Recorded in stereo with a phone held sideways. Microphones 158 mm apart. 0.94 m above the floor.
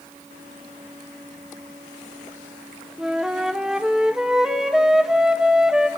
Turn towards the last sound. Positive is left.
turn(degrees=-5)  # may be behind; listen again after turning